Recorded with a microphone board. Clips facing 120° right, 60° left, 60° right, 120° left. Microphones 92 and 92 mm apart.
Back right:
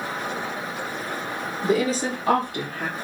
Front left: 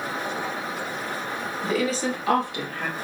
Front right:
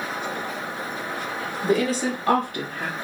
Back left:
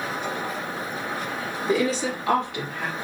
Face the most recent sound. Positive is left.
turn(degrees=-95)